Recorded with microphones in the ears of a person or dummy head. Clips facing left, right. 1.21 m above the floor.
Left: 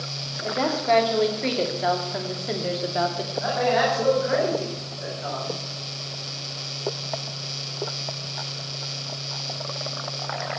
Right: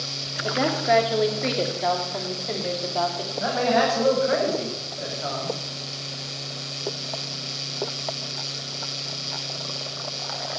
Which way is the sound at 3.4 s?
40° right (ahead or behind).